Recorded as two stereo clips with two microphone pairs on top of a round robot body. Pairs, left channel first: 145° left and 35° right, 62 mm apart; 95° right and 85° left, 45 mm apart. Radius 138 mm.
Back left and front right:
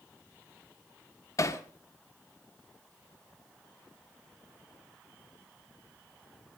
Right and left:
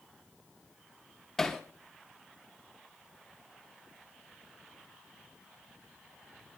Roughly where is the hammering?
Behind.